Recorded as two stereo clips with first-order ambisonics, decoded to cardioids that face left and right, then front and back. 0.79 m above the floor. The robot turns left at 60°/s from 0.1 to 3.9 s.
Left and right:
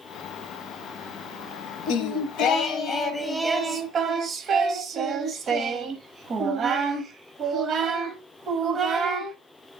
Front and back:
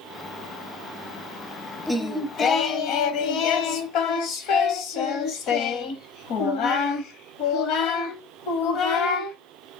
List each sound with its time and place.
1.9 s singing: 90° left, 0.9 m; by 9.4 s 30° right, 0.9 m